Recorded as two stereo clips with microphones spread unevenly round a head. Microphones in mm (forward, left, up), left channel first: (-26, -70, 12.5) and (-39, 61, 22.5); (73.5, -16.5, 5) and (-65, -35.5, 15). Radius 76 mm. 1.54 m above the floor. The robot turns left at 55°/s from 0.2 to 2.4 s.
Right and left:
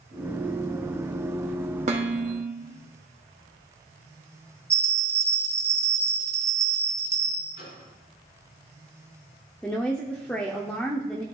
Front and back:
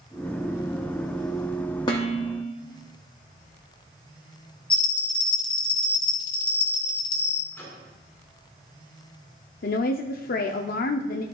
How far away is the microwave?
About 2.5 m.